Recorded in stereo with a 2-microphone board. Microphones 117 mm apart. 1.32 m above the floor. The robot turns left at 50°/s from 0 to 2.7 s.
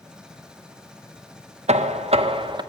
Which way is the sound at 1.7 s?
90° right.